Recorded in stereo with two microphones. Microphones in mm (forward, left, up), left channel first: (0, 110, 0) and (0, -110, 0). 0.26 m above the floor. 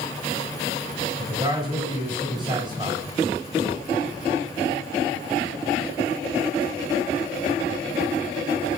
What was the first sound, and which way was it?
A man speaking, 20° right (ahead or behind).